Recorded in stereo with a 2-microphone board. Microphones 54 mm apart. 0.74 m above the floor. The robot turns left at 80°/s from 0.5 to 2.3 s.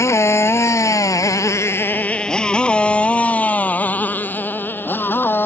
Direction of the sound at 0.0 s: 65° left (ahead or behind).